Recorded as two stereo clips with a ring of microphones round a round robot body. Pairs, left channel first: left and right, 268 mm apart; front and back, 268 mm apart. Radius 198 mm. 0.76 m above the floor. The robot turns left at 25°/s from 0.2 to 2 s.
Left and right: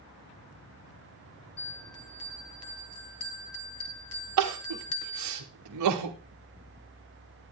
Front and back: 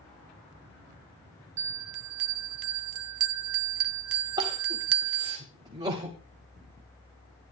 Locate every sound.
1.6 s a bell: 155° left, 0.8 m; by 5.4 s 145° left, 0.8 m
4.4 s crying: 100° right, 0.9 m